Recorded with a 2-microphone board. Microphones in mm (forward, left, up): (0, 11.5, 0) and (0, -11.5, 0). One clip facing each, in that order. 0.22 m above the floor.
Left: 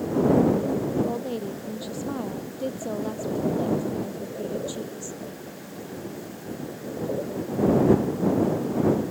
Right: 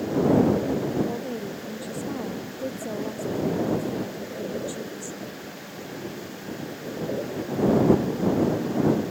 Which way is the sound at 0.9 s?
40° left (ahead or behind).